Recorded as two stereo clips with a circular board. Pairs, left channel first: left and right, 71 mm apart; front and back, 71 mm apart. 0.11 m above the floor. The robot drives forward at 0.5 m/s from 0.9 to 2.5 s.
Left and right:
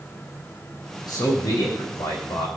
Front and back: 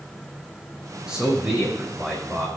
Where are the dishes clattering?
I don't hear dishes clattering.